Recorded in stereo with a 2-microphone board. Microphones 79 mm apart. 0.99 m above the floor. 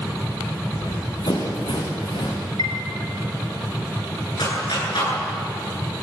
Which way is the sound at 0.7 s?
60° left (ahead or behind).